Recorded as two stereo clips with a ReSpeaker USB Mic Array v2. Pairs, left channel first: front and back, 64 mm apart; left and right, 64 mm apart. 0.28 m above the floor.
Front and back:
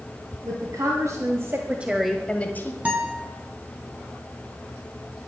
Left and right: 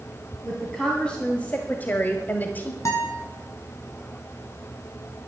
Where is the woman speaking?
170° left, 2.5 m; by 2.8 s 35° left, 1.6 m.